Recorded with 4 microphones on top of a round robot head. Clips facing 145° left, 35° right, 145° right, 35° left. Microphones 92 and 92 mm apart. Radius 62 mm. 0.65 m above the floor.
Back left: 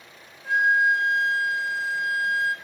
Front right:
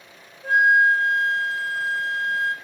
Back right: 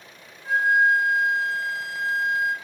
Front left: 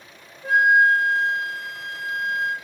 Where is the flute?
5° left, 1.7 m.